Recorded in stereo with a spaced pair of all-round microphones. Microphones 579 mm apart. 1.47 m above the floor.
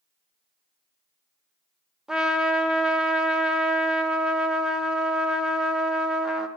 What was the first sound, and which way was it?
A trumpet, centre (ahead or behind).